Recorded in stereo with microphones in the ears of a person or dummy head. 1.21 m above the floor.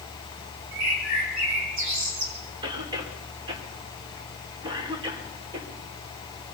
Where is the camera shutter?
I don't hear a camera shutter.